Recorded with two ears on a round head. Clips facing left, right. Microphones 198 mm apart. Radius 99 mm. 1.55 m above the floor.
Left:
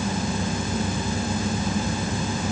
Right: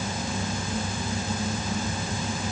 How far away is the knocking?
No knocking in this recording.